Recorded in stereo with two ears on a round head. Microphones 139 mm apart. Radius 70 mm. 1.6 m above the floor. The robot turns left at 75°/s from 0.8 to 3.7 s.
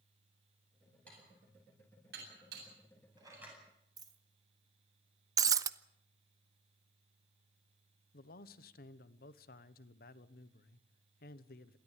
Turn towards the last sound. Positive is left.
turn(degrees=65)  # may be behind; listen again after turning